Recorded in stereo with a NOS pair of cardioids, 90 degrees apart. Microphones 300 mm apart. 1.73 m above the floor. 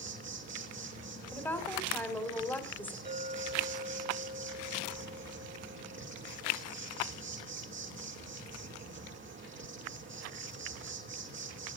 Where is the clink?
30° right, 7 m.